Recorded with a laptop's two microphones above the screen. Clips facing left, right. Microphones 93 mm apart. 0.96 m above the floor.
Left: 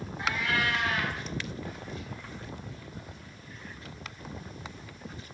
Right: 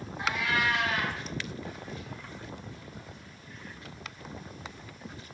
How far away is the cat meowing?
About 1.6 m.